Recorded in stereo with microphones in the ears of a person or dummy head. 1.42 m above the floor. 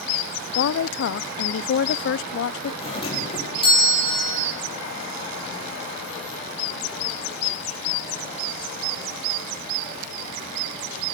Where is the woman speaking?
75° left (ahead or behind), 0.5 m.